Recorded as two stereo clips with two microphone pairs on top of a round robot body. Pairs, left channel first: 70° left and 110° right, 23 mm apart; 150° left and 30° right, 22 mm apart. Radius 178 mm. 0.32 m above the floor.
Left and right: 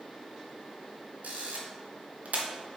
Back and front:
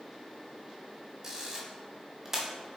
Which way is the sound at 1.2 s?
100° right.